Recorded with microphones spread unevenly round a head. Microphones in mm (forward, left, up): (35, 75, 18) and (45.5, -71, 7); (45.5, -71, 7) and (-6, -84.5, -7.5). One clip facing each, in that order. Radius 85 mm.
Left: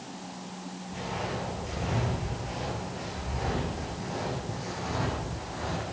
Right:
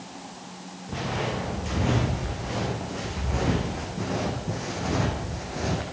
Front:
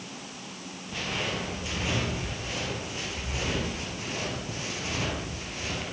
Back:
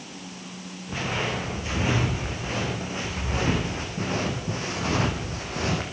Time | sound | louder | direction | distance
0.9 | footsteps | right 5 dB, back 4 dB | 110° right | 8 m